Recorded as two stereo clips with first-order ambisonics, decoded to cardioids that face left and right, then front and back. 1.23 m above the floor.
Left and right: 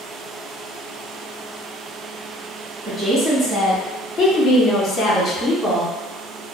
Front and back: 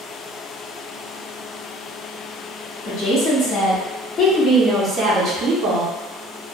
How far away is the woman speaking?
About 1.5 m.